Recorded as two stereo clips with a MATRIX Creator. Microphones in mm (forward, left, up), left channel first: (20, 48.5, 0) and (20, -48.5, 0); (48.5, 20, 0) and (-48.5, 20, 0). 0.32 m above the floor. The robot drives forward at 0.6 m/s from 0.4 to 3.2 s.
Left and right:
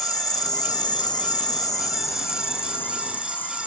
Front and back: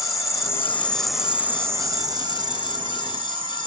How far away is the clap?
No clap in this recording.